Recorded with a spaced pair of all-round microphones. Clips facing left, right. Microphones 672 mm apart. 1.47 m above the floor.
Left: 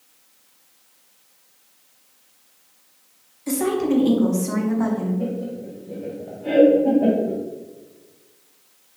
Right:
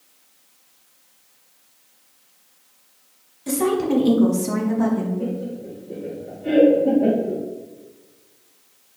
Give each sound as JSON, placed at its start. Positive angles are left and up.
{"t": 3.5, "sound": "a woman speaking", "side_deg": -65, "distance_m": 1.1}
{"t": 5.2, "sound": "laughter", "side_deg": 25, "distance_m": 0.6}